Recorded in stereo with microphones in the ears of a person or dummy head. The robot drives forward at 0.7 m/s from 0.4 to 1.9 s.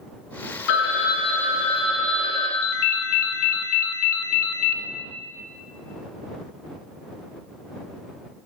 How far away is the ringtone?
About 0.5 m.